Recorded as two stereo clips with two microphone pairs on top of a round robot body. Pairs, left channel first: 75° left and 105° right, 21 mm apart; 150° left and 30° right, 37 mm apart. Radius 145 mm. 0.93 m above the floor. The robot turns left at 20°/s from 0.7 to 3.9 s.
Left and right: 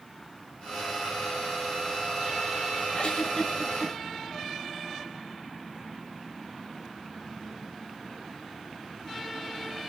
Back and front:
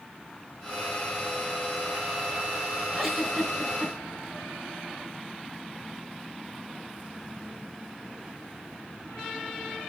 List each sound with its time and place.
2.9 s a giggle: 65° left, 3.5 m; by 3.9 s 45° left, 3.5 m